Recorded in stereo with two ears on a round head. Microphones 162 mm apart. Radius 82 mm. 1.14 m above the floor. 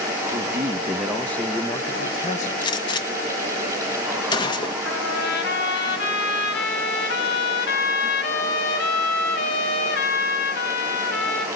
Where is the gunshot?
25° left (ahead or behind), 1.7 m.